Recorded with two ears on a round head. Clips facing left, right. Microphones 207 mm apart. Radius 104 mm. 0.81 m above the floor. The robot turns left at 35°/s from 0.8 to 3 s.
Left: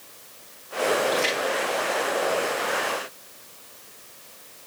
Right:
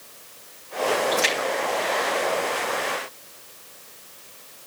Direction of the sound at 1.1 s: 20° right (ahead or behind).